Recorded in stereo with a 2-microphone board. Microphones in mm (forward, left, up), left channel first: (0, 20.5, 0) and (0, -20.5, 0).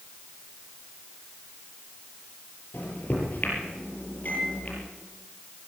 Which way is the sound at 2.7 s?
45° left (ahead or behind).